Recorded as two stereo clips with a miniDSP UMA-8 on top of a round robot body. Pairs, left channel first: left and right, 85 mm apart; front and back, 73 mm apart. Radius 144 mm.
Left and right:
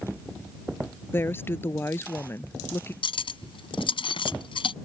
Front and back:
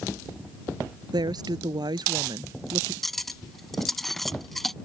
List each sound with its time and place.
1.1 s a woman speaking: 155° left
3.0 s cutlery clinking: 85° left